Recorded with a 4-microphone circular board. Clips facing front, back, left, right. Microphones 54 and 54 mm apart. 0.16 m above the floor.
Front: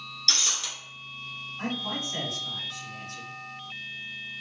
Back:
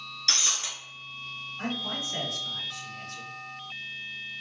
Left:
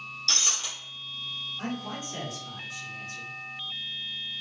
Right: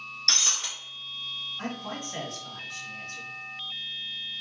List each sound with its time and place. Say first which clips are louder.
0.3 s breaking glass: even, right 1 dB; 115° right, 1.1 m
1.6 s a man speaking: front 1 dB, left 1 dB; 105° right, 2.0 m